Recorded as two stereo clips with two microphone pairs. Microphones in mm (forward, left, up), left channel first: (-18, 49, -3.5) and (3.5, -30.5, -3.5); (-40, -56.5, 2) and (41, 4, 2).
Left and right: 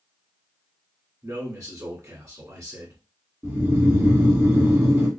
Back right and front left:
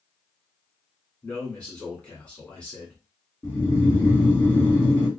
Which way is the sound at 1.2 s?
75° right.